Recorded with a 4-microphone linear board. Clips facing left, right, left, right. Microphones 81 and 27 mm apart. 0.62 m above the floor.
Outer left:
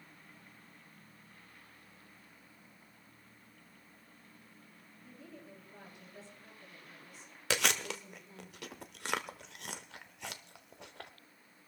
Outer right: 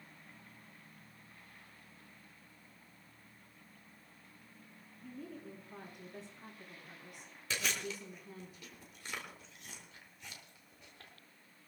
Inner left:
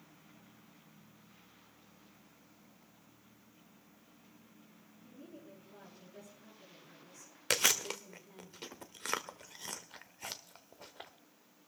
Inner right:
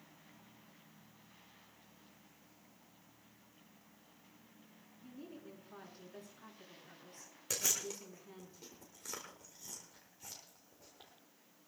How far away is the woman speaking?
About 6.5 m.